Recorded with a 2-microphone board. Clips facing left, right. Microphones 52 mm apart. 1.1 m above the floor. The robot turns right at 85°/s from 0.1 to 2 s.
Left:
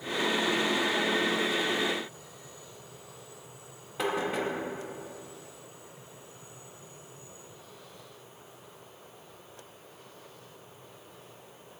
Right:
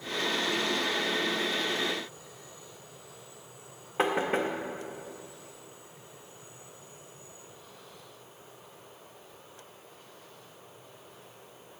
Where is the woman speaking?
I don't hear a woman speaking.